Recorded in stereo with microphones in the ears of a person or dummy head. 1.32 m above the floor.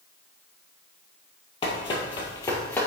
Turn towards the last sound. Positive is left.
turn(degrees=10)  # may be behind; listen again after turning